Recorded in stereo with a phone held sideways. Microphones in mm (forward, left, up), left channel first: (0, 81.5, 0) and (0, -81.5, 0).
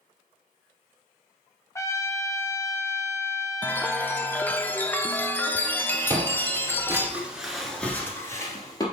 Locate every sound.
1.8 s a trumpet: 20° left (ahead or behind), 0.6 m
3.6 s a chime: 15° left (ahead or behind), 0.6 m
6.1 s footsteps: 25° right (ahead or behind), 1.7 m; by 8.8 s 25° left (ahead or behind), 1.7 m